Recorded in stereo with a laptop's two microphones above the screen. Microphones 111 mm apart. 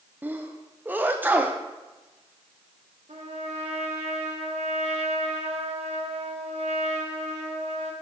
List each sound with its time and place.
0.2 s a sneeze: 15° right (ahead or behind), 0.5 m
3.1 s a trumpet: 75° right (ahead or behind), 1.3 m